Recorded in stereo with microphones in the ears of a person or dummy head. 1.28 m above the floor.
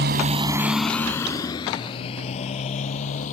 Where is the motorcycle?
55° right (ahead or behind); by 3.3 s 40° left (ahead or behind).